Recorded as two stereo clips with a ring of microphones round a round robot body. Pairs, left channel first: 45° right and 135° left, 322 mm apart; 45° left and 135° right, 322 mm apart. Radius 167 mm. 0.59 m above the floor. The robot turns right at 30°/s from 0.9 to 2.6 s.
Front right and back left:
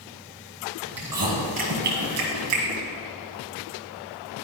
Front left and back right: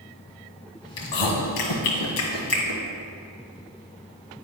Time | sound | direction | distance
1.0 | chewing | 50° left | 1.7 m